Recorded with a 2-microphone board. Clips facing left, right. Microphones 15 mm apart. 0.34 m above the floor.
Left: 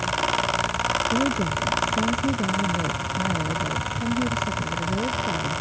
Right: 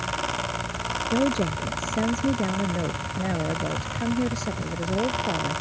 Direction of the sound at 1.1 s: 35° right (ahead or behind).